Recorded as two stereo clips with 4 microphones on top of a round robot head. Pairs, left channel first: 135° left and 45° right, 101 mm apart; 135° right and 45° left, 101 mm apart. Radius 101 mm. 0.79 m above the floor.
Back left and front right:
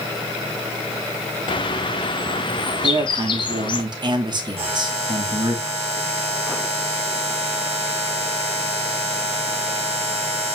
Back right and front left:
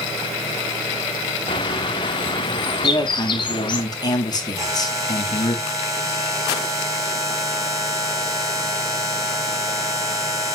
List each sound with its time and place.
1.5 s a bird: straight behind, 0.8 m
2.8 s a man speaking: 85° right, 2 m
4.6 s a buzzer: 15° right, 4.5 m